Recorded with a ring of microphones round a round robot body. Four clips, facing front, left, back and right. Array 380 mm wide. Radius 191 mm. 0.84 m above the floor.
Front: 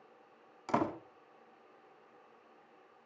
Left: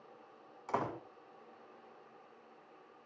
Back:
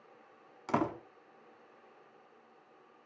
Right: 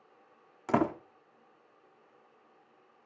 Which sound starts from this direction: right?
A door slam, at 0.7 s.